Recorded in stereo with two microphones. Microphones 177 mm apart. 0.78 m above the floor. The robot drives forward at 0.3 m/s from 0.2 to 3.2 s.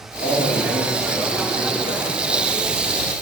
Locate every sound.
0.2 s a man speaking: 80° left, 3.5 m; by 3.0 s 75° left (ahead or behind), 3.5 m